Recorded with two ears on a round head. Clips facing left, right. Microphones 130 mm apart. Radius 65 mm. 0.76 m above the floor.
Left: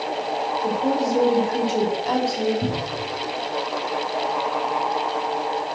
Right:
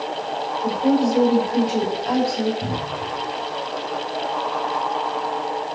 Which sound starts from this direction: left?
A cupboard door, at 2.6 s.